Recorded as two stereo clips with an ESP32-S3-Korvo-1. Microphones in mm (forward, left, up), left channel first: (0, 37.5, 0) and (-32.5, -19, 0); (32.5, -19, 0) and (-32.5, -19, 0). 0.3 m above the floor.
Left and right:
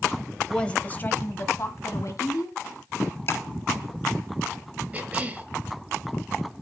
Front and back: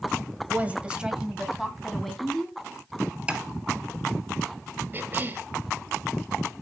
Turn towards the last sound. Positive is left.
turn(degrees=-165)